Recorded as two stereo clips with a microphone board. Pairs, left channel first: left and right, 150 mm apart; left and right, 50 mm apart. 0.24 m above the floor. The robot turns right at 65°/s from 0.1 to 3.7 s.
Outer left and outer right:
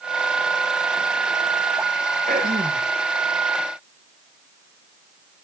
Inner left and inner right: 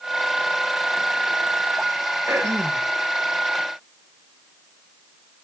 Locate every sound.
2.3 s throat clearing: 115° right, 3 m; by 2.9 s 75° right, 3 m